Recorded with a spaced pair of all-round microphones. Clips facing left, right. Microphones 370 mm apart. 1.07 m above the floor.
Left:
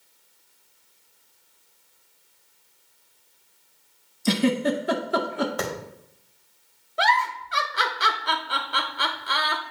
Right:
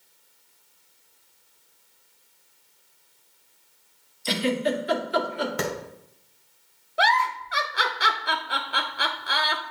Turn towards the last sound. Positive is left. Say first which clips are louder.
# even
turn(degrees=5)  # may be behind; listen again after turning